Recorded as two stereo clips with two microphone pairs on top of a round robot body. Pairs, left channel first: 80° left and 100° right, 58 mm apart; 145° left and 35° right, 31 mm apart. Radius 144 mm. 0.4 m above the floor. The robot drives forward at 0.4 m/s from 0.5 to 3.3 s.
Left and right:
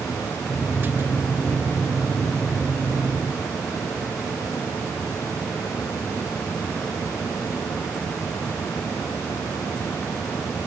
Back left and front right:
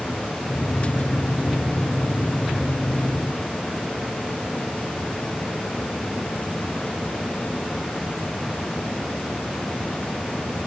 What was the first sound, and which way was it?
Only background noise.